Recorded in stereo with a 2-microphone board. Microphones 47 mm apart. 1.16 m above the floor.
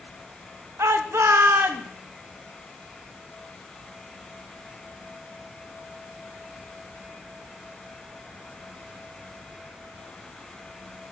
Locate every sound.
0.8 s a shout: 75° right (ahead or behind), 1.5 m; by 1.9 s 45° right (ahead or behind), 1.8 m